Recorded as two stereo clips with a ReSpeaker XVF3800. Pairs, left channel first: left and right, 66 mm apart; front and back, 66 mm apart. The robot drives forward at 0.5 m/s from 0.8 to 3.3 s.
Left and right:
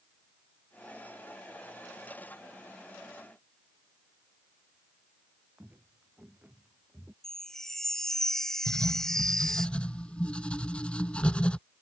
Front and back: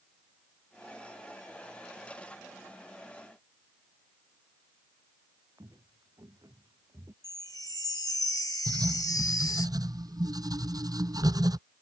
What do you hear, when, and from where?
5.6 s footsteps: 155° right; by 7.1 s 150° right
7.2 s a chime: 10° left
8.7 s writing: 165° left